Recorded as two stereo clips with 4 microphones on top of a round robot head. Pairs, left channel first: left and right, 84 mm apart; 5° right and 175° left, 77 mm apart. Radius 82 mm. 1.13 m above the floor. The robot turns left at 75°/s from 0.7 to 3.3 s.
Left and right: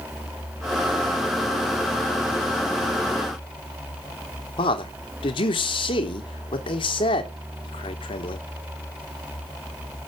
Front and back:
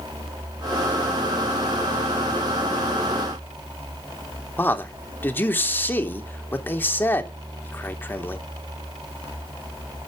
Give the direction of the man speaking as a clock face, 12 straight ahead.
10 o'clock.